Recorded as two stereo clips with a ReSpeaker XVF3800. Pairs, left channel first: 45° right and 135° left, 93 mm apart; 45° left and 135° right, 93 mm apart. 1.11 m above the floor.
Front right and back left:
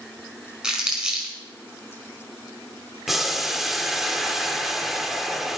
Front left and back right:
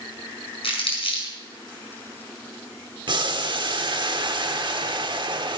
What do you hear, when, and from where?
0.6 s crumpling: 55° left, 5 m
3.1 s boiling: 135° right, 1.0 m